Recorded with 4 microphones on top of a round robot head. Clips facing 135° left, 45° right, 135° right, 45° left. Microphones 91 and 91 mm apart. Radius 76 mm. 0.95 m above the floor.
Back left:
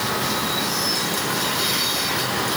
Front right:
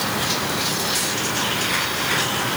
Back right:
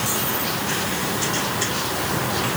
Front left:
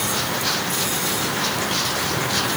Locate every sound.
Only background noise.